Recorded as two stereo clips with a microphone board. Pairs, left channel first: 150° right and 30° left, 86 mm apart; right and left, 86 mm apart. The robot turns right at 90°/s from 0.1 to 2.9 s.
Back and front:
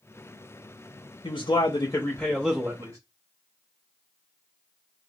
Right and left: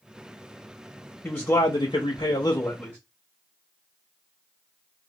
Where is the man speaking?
160° right, 0.9 m; by 3.0 s 10° right, 0.9 m.